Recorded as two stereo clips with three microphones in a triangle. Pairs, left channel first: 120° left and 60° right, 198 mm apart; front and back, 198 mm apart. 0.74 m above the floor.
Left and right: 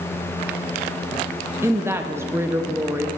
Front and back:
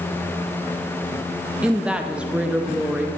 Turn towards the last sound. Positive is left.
turn(degrees=-105)